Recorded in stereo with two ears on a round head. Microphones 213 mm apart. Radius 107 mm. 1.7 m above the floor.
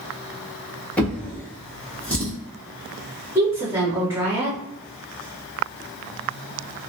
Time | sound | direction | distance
1.0 | a drawer | 5° left (ahead or behind) | 0.8 m
3.4 | a woman speaking | 10° right (ahead or behind) | 1.5 m